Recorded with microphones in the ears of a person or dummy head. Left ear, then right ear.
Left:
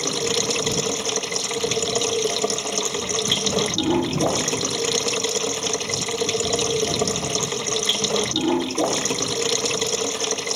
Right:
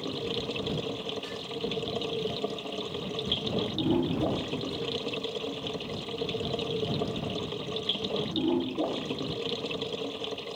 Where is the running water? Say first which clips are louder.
Left 10 dB; 60° left (ahead or behind).